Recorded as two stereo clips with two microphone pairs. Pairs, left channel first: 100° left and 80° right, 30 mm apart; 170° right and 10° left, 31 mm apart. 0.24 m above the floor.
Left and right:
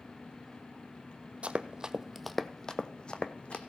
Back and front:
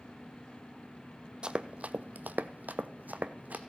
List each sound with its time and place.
1.4 s running footsteps: 45° right, 0.6 m; by 3.6 s 45° left, 1.0 m